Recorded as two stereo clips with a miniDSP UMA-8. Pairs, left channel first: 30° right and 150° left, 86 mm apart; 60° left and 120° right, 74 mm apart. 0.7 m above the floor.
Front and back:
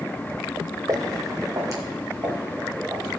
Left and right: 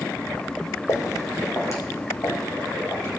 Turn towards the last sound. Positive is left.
turn(degrees=105)